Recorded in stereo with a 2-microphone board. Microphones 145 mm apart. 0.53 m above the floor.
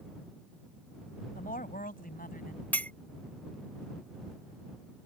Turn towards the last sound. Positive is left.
turn(degrees=10)  # may be behind; listen again after turning